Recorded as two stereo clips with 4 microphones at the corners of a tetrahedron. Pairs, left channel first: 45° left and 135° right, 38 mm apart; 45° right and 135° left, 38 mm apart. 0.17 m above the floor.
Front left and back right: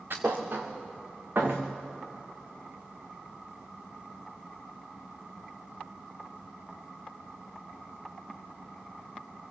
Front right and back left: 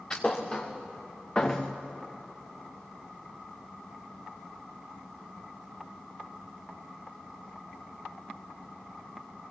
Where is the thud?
110° right, 3 m.